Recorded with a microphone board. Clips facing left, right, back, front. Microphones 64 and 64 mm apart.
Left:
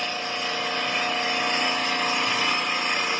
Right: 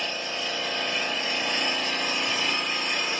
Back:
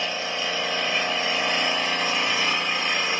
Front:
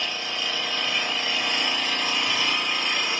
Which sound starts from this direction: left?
An engine running, at 0.0 s.